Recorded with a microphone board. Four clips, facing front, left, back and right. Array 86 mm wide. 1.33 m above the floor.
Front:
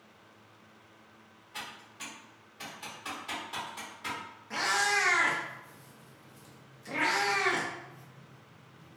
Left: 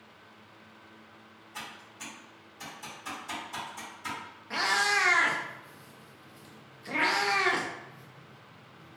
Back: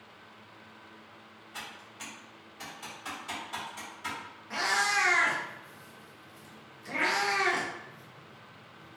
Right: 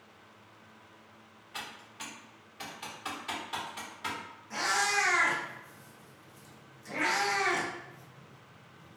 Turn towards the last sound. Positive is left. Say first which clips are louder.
# left 2 dB, even
turn(degrees=90)